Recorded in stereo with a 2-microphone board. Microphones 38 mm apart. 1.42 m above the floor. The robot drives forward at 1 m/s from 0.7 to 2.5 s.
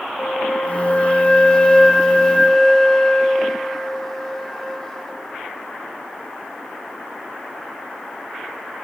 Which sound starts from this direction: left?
A flute, at 0.2 s.